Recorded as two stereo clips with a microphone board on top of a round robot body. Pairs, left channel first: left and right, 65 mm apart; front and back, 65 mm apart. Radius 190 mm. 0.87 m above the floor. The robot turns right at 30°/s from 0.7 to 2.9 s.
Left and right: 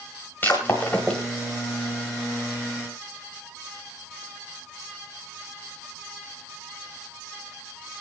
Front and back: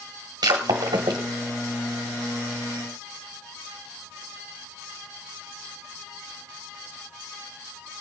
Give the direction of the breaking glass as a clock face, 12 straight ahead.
7 o'clock.